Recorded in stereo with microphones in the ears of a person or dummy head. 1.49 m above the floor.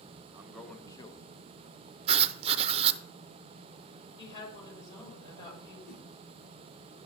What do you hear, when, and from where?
0.3 s a man speaking: 15° right (ahead or behind), 1.2 m; by 2.0 s 55° left (ahead or behind), 2.5 m
2.1 s writing: 35° right (ahead or behind), 0.8 m
4.2 s a woman speaking: 25° left (ahead or behind), 6 m
5.9 s a whoosh: 70° left (ahead or behind), 3.5 m